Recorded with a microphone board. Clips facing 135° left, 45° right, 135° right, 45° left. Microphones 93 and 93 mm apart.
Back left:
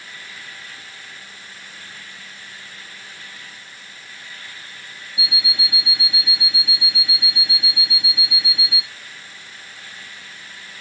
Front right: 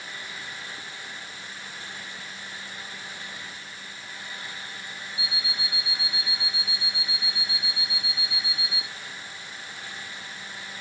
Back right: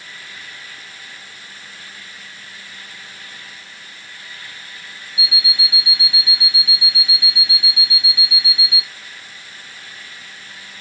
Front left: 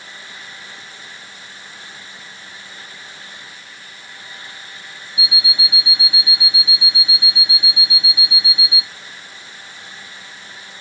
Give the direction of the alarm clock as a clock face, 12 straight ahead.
8 o'clock.